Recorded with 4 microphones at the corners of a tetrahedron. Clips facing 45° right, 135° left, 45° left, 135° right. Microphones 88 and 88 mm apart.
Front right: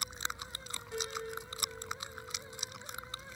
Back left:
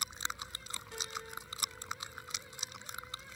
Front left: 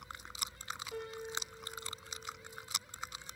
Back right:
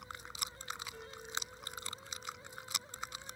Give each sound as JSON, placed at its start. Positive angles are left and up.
{"t": 0.9, "sound": "a piano", "azimuth_deg": 30, "distance_m": 4.5}